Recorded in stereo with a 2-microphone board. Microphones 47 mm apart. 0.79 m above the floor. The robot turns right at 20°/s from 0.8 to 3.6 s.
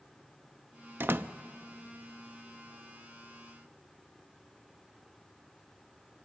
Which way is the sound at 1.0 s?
50° right (ahead or behind).